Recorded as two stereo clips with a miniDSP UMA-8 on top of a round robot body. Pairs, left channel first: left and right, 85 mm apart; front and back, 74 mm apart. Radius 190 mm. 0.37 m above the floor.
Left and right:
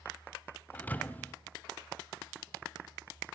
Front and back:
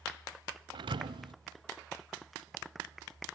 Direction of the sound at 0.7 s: 160° left.